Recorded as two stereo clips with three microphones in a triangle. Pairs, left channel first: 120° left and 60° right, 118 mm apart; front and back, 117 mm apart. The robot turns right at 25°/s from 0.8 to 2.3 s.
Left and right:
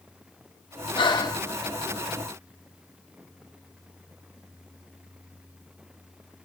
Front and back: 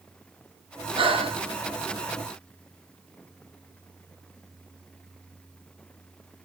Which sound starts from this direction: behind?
Breathing, at 1.0 s.